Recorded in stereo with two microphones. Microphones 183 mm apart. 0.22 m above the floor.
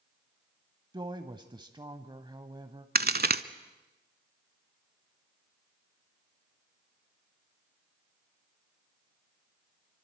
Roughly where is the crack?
Right.